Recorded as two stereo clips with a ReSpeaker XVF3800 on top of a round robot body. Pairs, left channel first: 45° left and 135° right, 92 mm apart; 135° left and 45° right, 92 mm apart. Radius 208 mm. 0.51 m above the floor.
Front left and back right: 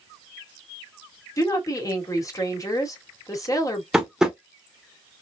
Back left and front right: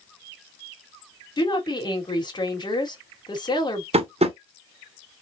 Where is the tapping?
50° right, 1.1 m.